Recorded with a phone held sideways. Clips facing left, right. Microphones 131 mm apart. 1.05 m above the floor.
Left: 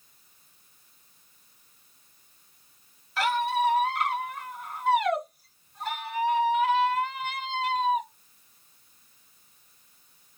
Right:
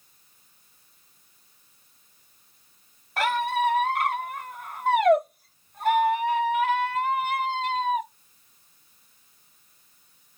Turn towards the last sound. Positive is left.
turn(degrees=-55)  # may be behind; listen again after turning